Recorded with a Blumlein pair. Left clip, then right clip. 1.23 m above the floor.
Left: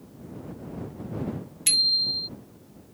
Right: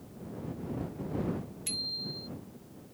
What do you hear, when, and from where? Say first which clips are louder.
1.7 s a bicycle bell: left 14 dB; 35° left